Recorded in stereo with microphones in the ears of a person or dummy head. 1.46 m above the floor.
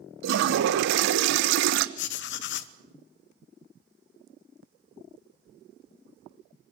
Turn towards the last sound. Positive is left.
turn(degrees=65)  # may be behind; listen again after turning